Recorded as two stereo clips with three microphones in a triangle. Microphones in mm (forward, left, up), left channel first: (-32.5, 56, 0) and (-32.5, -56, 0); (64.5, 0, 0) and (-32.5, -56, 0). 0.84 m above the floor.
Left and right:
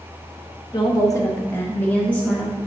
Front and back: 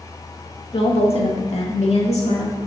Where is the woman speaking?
50° left, 1.0 m; by 2.6 s 10° left, 2 m.